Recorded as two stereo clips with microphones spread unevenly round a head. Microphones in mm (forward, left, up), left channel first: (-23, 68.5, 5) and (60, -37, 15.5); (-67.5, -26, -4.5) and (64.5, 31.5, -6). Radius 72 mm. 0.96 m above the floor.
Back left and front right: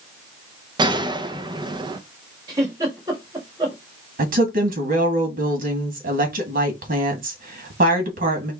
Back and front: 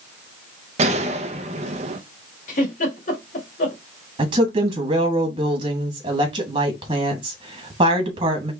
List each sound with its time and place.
0.8 s a gunshot: straight ahead, 0.7 m
2.5 s a giggle: 120° right, 1.9 m
4.2 s a woman speaking: 35° right, 1.7 m